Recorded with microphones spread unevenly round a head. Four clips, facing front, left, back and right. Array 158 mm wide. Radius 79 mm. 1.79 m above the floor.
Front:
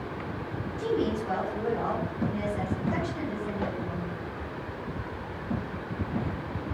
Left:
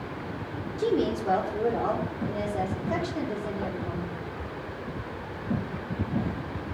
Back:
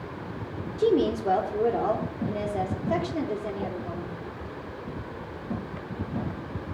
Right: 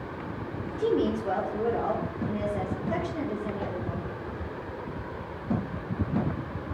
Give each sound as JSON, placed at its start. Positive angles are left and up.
{"t": 0.8, "sound": "a woman speaking", "azimuth_deg": 175, "distance_m": 4.0}